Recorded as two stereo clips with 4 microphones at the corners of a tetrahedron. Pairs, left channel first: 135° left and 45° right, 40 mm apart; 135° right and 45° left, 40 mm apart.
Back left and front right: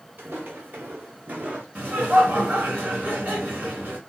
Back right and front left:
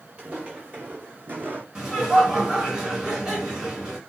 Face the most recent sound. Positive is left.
turn(degrees=-20)